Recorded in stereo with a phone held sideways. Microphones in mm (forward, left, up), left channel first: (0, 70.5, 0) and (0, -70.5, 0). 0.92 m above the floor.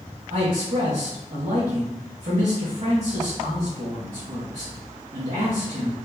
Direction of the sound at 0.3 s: 65° right (ahead or behind).